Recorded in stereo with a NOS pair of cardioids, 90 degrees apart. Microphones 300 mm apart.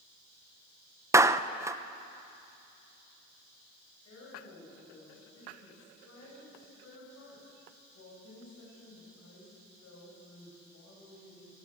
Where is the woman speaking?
60° left, 9 m.